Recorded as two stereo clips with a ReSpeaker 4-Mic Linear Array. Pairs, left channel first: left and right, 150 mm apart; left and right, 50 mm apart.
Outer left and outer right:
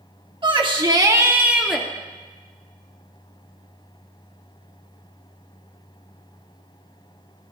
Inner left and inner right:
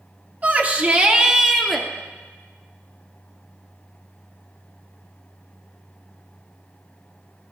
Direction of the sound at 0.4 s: 35° right (ahead or behind).